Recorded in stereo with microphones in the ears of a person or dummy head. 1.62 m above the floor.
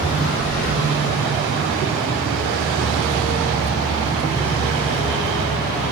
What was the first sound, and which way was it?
Breathing, 50° left (ahead or behind).